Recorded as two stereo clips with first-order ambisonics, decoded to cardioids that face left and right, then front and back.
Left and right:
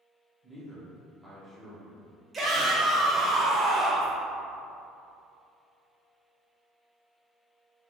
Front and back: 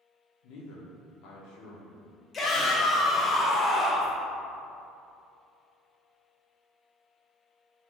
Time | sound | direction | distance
0.4 | a man speaking | 10° left | 0.8 m
2.3 | a shout | 20° right | 0.5 m